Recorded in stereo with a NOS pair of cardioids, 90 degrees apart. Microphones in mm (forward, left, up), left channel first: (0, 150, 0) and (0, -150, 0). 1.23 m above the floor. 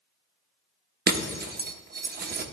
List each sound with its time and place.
1.1 s breaking glass: 35° right, 0.9 m